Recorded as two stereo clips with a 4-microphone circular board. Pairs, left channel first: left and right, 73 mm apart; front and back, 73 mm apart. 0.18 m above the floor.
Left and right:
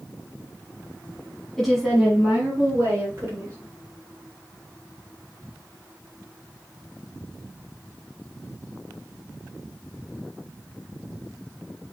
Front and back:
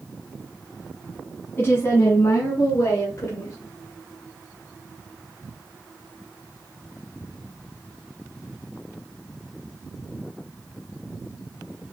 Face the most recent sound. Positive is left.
turn(degrees=-40)